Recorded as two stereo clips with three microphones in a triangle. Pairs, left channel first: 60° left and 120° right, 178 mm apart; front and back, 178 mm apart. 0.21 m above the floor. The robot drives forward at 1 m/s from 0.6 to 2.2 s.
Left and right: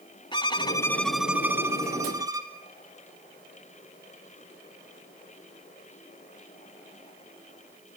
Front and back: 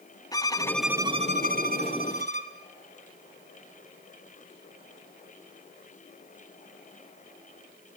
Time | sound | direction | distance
0.3 | a violin | 40° left | 0.6 m